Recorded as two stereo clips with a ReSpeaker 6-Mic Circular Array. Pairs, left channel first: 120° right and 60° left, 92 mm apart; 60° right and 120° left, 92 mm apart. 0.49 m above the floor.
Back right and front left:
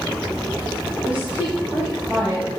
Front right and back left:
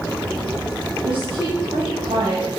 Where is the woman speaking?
135° left, 3 m.